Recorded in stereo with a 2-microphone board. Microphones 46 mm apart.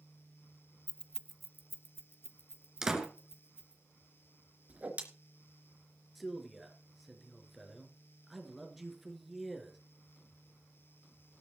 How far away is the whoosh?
About 3 m.